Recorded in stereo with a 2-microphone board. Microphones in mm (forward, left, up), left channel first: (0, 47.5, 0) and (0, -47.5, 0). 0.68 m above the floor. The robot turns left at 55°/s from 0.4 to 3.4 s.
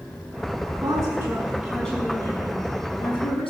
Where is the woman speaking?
130° right, 6 m; by 3.5 s 85° left, 6 m.